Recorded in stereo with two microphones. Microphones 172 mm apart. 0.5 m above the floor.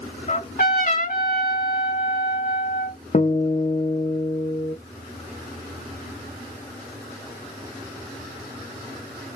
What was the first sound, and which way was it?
A trumpet, 55° left (ahead or behind).